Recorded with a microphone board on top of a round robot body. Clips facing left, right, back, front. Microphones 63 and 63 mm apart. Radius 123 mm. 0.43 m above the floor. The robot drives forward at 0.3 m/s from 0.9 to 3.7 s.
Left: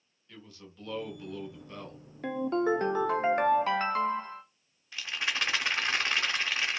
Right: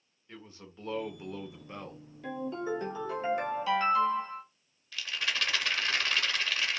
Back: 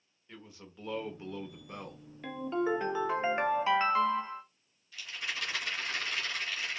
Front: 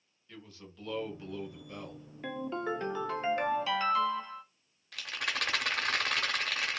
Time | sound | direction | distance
0.3 | a man speaking | 130° right | 0.9 m
2.2 | a ringtone | 80° left | 0.7 m
4.9 | a rattle | 20° left | 0.7 m